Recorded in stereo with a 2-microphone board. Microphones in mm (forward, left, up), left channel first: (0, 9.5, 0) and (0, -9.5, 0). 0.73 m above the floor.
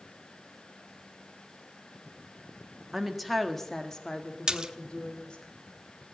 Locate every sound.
2.9 s a woman speaking: 10° right (ahead or behind), 1.6 m; by 5.5 s 55° left (ahead or behind), 3 m
4.5 s a splash: 40° right (ahead or behind), 1.0 m